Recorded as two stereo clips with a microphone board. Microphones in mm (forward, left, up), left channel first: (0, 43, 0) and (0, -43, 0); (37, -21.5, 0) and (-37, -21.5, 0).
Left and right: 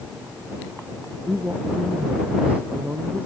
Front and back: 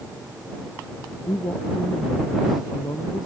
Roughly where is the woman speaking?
Ahead.